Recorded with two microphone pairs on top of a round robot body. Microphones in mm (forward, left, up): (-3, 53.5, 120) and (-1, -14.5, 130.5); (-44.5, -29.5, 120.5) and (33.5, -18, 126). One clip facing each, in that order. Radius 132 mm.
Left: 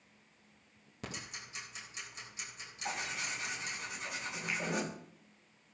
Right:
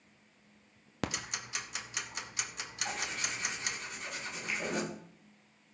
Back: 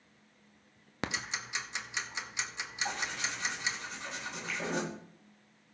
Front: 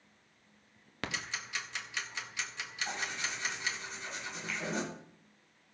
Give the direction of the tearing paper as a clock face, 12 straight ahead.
7 o'clock.